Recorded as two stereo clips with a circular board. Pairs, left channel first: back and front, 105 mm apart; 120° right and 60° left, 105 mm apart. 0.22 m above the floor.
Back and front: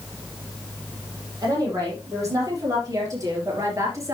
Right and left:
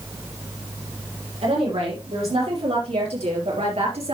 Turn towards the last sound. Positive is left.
turn(degrees=60)